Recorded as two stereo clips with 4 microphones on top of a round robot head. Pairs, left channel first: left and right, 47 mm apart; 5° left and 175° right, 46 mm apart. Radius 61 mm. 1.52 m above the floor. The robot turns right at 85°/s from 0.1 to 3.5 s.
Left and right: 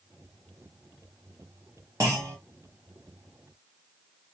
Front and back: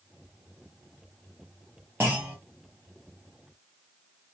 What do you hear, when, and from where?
2.0 s a clunk: 115° right, 0.7 m; by 2.4 s 85° right, 0.7 m